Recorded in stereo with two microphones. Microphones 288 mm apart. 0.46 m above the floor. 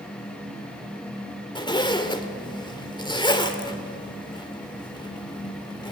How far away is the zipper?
About 1.8 m.